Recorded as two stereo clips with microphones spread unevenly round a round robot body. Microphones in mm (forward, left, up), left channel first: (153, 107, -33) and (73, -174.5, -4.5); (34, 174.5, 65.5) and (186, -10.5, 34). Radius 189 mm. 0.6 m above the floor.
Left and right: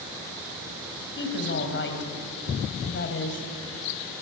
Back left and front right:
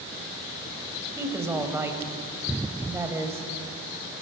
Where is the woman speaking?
30° left, 3 m.